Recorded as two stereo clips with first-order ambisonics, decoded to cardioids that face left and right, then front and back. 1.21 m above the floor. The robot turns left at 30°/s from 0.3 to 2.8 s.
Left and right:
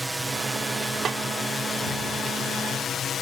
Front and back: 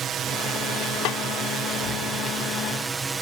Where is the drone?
165° right; by 3.2 s 120° left.